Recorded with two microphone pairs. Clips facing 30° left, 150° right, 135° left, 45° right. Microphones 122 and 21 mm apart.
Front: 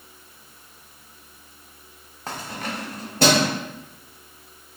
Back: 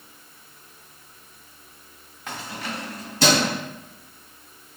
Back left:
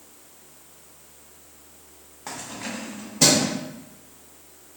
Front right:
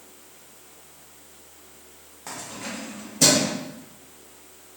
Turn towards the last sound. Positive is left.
turn(degrees=60)